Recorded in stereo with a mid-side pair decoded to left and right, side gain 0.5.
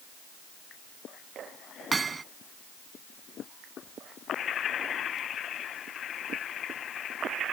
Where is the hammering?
30° right.